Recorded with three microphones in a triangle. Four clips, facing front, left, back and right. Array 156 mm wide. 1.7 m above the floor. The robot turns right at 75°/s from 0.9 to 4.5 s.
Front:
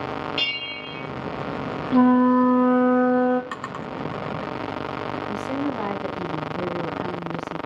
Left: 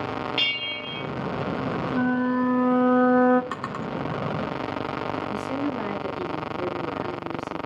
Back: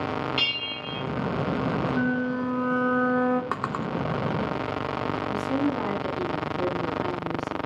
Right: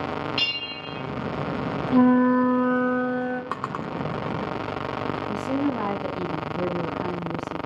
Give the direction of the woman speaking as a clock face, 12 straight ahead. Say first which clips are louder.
Right 2 dB, back 1 dB; 2 o'clock.